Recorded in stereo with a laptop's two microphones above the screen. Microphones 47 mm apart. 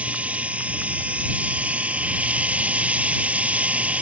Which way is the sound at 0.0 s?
30° right (ahead or behind).